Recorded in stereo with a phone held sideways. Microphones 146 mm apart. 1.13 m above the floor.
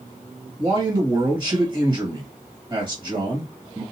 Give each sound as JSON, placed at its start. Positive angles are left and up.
{"t": 0.6, "sound": "a man speaking", "side_deg": -30, "distance_m": 1.5}